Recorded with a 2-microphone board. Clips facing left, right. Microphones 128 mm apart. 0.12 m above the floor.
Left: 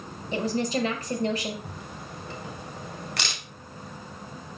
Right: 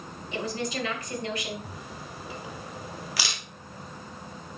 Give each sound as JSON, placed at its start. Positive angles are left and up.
{"t": 0.3, "sound": "a woman speaking", "side_deg": 35, "distance_m": 2.5}
{"t": 1.6, "sound": "a camera shutter", "side_deg": -5, "distance_m": 1.5}